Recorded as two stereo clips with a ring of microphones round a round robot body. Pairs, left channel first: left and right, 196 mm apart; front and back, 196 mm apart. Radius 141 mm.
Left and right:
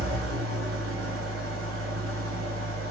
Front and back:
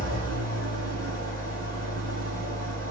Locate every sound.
0.0 s an engine running: 80° right, 1.3 m